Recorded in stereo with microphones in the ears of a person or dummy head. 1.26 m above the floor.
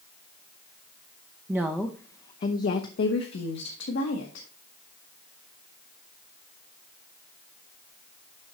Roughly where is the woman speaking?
Centre.